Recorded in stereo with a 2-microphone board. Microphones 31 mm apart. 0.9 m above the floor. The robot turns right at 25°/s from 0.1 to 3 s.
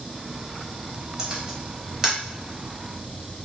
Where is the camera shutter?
25° right (ahead or behind), 0.7 m; by 2.2 s 15° right (ahead or behind), 0.7 m.